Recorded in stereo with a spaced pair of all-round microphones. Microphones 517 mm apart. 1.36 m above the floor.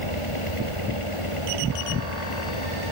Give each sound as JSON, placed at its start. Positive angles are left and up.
{"t": 0.0, "sound": "a fan", "side_deg": 80}